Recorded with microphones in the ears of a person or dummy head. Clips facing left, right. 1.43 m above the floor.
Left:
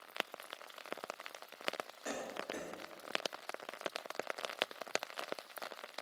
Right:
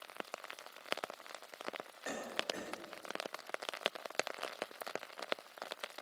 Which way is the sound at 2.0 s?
35° left (ahead or behind).